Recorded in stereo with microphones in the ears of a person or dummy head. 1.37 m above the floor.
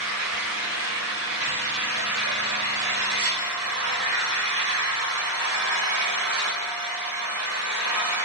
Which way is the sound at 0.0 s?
80° right.